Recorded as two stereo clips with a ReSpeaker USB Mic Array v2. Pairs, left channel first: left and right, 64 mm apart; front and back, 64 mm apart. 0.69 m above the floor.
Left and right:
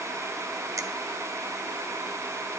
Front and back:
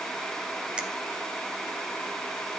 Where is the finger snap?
110° right, 0.7 m.